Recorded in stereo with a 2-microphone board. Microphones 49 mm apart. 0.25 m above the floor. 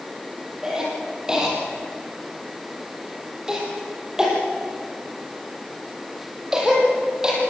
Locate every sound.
0.6 s a cough: 15° right (ahead or behind), 7.5 m